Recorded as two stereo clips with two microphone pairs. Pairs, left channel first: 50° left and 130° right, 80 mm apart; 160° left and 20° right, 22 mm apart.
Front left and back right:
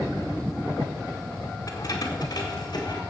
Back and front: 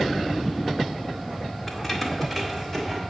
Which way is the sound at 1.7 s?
80° left.